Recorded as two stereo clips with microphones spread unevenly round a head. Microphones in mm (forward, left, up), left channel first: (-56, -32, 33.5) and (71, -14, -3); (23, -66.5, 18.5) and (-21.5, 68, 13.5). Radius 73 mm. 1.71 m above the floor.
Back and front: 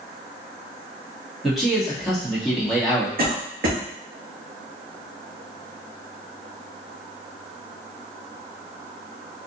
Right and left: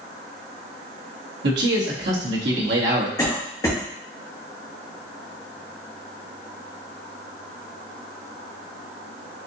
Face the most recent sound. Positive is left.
turn(degrees=-5)